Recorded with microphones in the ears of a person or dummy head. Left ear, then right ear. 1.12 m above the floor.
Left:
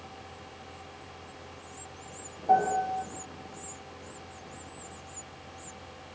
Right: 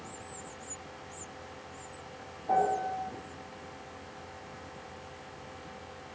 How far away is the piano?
About 1.4 m.